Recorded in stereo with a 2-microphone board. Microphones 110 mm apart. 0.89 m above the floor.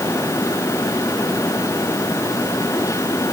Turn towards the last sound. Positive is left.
No sound to turn to.